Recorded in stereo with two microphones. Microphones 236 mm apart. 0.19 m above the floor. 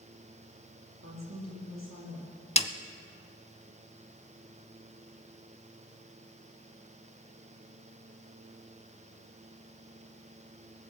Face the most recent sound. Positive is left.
turn(degrees=25)  # may be behind; listen again after turning